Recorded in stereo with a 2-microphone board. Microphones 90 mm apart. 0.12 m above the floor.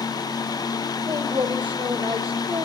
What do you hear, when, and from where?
1.1 s a woman speaking: 65° right (ahead or behind), 2.5 m; by 2.7 s 70° right (ahead or behind), 3 m